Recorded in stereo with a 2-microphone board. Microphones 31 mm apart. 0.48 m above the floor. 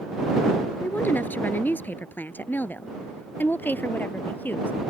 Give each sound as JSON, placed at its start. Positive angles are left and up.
{"t": 0.8, "sound": "a woman speaking", "side_deg": 75}